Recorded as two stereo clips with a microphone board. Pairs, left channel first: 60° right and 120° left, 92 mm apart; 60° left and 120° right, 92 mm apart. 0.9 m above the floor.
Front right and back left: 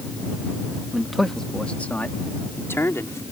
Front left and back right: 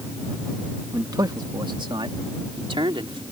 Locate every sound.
0.9 s a man speaking: 160° right; by 3.2 s 115° right